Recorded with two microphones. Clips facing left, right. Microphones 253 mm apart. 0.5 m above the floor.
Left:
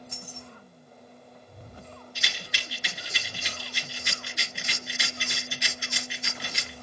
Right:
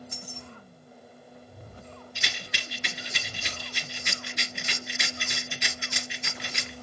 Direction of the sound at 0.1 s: 40° right (ahead or behind).